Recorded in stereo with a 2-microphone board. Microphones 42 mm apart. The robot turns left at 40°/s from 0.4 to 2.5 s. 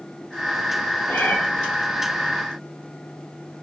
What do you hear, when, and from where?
1.1 s a cat meowing: 55° left (ahead or behind), 0.8 m; by 1.4 s 65° left (ahead or behind), 0.8 m